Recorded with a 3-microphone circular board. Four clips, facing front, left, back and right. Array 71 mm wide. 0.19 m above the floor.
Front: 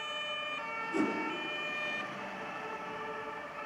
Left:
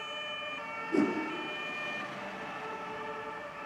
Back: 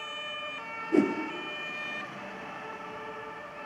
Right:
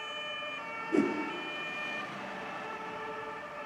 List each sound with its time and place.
0.9 s a whoosh: 170° right, 3 m